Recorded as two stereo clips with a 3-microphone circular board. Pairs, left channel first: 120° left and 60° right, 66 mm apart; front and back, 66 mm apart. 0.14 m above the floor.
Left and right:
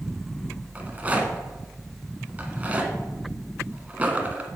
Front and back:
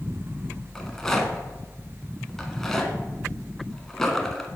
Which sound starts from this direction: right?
A rattle, at 0.8 s.